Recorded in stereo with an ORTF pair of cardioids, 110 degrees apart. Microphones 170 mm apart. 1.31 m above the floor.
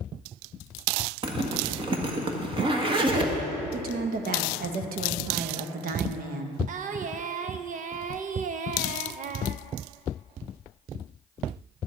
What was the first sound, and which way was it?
A zipper, 30° right.